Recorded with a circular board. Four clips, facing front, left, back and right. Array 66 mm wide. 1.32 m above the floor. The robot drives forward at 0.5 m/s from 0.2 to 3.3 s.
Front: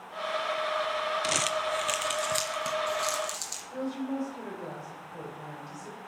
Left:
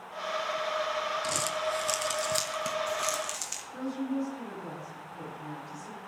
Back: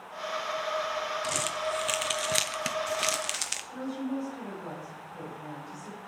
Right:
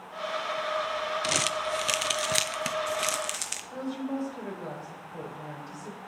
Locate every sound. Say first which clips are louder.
1.2 s crumpling: right 2 dB, front 2 dB; 60° right, 0.7 m; by 3.6 s 150° right, 1.0 m
3.7 s a woman speaking: even, front 1 dB; 70° right, 5 m